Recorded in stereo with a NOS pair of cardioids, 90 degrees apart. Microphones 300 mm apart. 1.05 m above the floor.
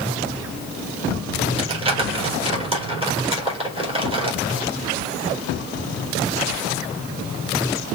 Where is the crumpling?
20° right, 3.5 m.